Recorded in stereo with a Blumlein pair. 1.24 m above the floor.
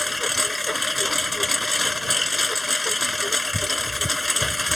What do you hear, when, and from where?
0.0 s a lawn mower: 5° left